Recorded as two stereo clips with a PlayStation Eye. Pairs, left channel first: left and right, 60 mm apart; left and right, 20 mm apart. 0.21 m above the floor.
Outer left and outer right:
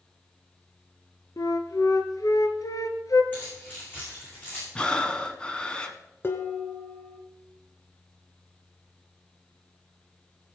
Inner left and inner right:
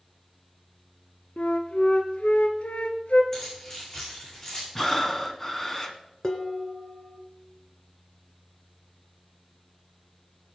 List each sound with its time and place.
1.4 s a flute: 75° left (ahead or behind), 1.2 m
3.3 s keys jangling: 30° left (ahead or behind), 9.5 m
4.8 s breathing: 15° left (ahead or behind), 1.3 m
6.2 s dishes clattering: 40° left (ahead or behind), 1.6 m